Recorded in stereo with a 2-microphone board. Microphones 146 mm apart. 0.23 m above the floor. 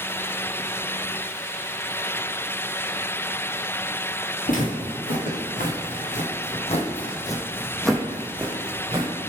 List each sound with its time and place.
4.5 s footsteps: 85° left, 1.7 m; by 9.1 s 25° right (ahead or behind), 1.2 m